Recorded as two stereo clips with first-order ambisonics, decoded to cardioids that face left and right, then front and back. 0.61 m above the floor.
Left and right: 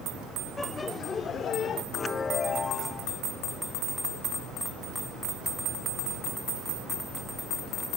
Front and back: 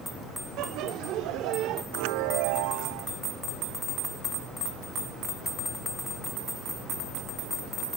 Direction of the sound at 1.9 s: 160° left.